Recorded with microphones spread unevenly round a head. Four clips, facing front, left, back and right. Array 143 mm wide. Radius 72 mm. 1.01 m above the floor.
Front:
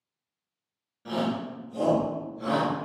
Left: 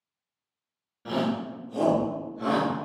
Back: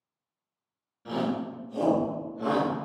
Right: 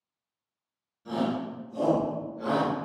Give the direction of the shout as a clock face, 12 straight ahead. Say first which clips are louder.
Left 1 dB, even; 9 o'clock.